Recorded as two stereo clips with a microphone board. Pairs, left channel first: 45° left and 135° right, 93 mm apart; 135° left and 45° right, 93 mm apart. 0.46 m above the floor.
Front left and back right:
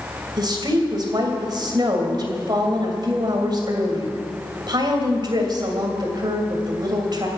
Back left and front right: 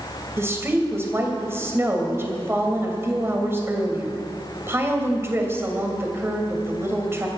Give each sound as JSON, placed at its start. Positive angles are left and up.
{"t": 0.4, "sound": "a woman speaking", "azimuth_deg": -105, "distance_m": 2.5}